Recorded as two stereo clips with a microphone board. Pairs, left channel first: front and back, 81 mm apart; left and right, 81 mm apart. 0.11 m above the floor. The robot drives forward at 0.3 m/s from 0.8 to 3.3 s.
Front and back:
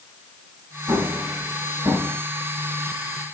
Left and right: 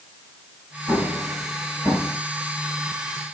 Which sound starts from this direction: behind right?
An explosion, at 0.9 s.